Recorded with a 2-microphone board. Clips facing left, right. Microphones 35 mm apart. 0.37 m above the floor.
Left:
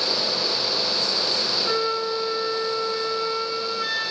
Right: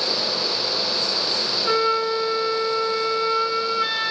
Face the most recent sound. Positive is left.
turn(degrees=-20)  # may be behind; listen again after turning